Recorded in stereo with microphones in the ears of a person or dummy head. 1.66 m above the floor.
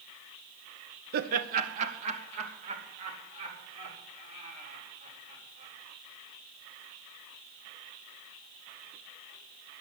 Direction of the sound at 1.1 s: 50° right (ahead or behind).